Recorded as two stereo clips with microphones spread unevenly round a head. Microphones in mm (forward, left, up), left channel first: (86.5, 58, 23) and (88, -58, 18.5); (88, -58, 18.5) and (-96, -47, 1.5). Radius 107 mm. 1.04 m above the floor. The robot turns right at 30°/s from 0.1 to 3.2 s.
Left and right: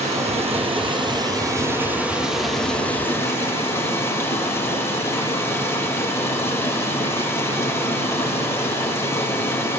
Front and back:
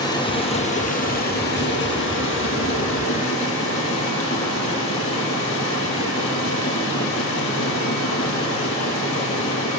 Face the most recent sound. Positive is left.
turn(degrees=25)